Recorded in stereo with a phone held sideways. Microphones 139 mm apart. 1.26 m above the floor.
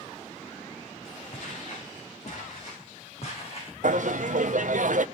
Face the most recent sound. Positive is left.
turn(degrees=-65)  # may be behind; listen again after turning